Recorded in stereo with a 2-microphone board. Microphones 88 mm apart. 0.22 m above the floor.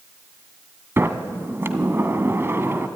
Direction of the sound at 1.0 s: 30° right (ahead or behind).